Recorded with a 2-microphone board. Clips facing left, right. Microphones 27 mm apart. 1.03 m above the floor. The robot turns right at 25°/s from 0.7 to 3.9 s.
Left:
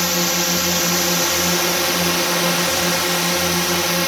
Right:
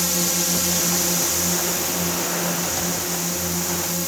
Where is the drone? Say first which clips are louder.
Left 4 dB; 30° left; by 4.1 s 110° left.